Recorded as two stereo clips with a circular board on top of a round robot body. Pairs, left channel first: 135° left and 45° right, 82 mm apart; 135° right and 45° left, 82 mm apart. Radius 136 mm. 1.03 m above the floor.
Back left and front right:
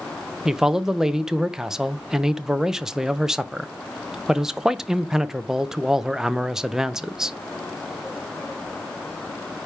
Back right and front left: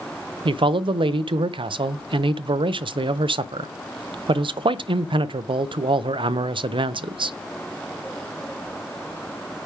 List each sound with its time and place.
0.5 s a man speaking: 40° left, 0.6 m